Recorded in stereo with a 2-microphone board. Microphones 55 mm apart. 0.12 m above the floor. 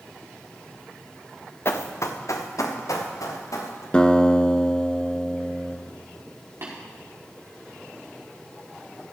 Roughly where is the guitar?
Centre.